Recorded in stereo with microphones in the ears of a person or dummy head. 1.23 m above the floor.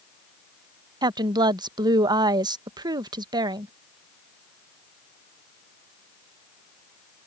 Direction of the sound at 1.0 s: 20° right (ahead or behind).